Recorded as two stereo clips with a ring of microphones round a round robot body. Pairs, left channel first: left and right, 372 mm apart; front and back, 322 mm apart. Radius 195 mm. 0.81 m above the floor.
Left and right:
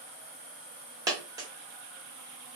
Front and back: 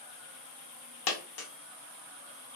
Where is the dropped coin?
10° right, 0.5 m.